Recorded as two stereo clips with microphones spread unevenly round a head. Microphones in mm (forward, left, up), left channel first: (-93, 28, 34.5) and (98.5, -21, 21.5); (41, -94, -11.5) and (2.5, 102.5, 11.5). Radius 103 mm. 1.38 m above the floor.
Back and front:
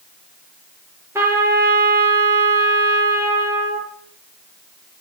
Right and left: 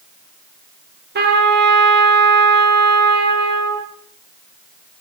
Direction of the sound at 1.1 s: 65° left.